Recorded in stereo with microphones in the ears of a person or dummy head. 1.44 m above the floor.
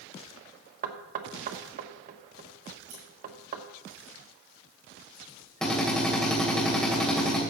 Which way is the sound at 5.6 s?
5° left (ahead or behind).